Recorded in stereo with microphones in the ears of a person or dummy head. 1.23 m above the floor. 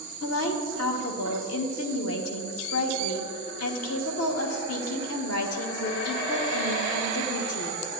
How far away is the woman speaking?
About 1.1 m.